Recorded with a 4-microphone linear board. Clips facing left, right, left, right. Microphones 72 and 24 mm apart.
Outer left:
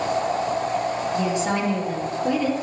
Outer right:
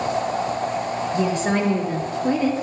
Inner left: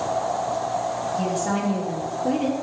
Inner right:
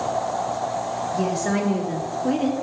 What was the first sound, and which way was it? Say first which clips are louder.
A woman speaking: outer right 4 dB, inner right 3 dB; 50° right (ahead or behind).